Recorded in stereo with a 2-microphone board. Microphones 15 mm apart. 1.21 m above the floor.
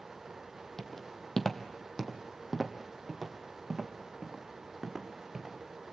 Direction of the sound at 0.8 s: 40° left (ahead or behind).